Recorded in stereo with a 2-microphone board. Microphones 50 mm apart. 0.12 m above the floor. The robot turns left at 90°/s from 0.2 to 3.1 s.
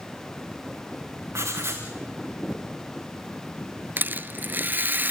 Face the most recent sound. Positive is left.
turn(degrees=-45)  # may be behind; listen again after turning